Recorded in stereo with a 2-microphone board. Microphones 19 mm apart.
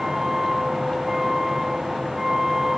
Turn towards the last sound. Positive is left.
turn(degrees=-15)  # may be behind; listen again after turning